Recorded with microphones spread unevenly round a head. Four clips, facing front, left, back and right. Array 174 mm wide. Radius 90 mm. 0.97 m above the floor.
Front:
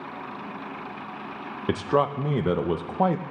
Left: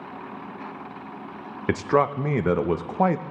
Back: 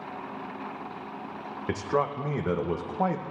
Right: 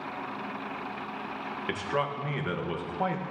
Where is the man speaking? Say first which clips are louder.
Left 10 dB, front 4 dB; 60° left, 0.6 m.